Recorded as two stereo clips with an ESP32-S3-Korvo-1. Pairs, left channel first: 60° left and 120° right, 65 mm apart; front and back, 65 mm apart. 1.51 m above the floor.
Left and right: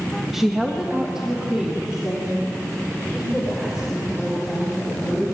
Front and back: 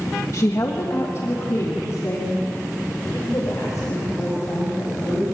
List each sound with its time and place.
0.3 s a woman speaking: 35° right, 1.7 m; by 5.2 s 40° right, 9 m